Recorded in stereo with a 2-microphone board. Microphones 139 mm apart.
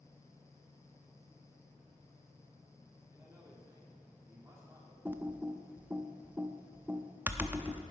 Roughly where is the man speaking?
Centre.